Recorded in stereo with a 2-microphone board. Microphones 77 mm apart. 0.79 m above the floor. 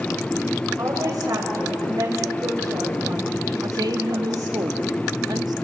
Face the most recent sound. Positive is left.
turn(degrees=-60)  # may be behind; listen again after turning